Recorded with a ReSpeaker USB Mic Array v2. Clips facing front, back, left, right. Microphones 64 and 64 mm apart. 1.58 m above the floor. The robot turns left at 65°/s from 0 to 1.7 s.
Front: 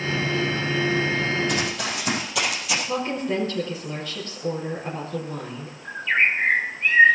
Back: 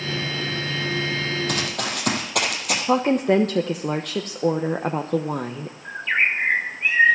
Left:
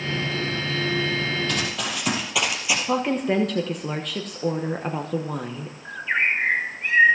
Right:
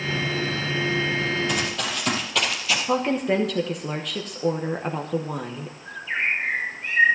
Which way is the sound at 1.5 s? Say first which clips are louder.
Front 1 dB, right 1 dB; 165° right.